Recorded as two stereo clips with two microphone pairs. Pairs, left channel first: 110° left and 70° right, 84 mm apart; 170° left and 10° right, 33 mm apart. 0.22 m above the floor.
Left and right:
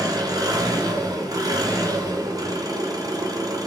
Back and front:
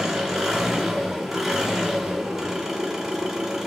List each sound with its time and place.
0.0 s an engine running: 85° right, 1.8 m